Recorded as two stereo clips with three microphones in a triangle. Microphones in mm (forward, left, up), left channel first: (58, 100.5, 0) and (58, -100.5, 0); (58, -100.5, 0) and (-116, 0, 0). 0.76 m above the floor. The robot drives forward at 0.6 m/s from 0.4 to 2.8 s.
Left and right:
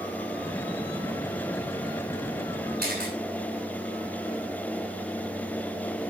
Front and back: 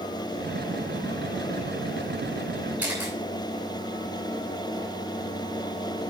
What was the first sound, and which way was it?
A camera shutter, 130° right.